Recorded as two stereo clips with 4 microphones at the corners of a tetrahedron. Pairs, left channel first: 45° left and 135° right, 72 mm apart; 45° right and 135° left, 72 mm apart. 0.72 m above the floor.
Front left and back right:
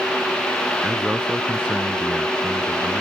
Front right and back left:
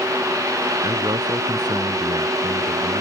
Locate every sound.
0.8 s a man speaking: 155° left; by 3.0 s 145° left